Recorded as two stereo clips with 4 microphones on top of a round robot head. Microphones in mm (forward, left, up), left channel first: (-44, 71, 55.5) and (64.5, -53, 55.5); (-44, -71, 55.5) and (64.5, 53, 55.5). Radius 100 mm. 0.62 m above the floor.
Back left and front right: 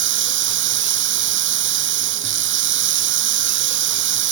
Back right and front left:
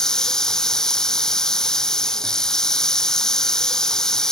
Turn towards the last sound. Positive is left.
turn(degrees=-45)